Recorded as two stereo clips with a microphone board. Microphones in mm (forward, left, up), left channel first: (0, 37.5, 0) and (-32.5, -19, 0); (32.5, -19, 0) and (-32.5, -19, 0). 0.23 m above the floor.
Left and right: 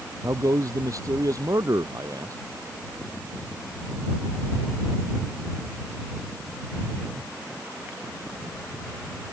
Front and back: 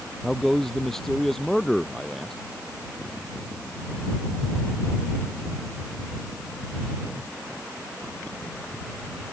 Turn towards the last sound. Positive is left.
turn(degrees=-85)